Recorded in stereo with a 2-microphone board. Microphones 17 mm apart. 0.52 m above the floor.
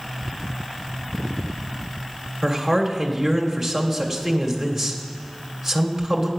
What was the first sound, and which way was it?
A man speaking, 10° right (ahead or behind).